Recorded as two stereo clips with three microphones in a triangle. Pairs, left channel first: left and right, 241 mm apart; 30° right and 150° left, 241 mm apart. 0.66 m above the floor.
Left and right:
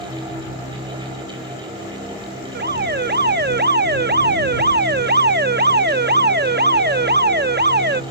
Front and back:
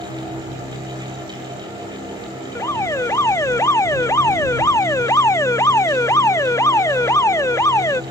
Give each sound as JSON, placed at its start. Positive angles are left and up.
{"t": 2.5, "sound": "an alarm", "azimuth_deg": -105}